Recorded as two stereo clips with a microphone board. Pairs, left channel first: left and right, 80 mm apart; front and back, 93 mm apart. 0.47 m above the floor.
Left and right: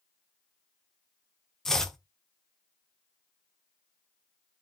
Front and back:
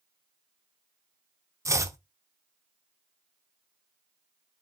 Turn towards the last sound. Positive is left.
turn(degrees=170)